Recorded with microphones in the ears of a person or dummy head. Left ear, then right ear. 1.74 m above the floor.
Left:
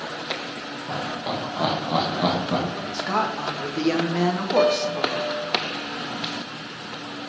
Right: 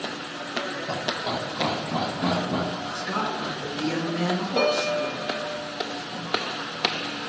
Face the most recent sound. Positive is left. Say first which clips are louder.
# left 3 dB
turn(degrees=5)  # may be behind; listen again after turning